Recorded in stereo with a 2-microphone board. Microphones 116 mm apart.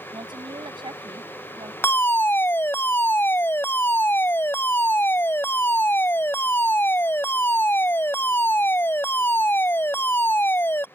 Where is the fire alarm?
20° left (ahead or behind).